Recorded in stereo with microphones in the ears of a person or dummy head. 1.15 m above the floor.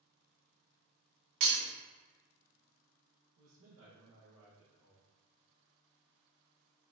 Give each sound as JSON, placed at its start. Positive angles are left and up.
{"t": 1.4, "sound": "breaking glass", "side_deg": -55, "distance_m": 1.0}
{"t": 3.4, "sound": "a man speaking", "side_deg": -85, "distance_m": 0.9}